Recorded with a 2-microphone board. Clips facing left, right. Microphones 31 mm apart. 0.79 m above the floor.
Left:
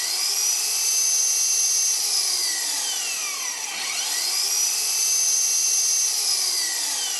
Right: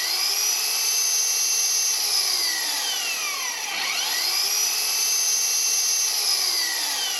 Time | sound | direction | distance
0.0 | an engine running | 15° right (ahead or behind) | 0.8 m